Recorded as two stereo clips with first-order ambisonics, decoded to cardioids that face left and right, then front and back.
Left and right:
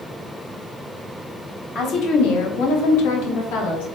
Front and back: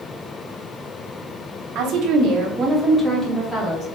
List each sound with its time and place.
1.8 s a woman speaking: 140° left, 1.2 m; by 3.9 s 75° left, 1.8 m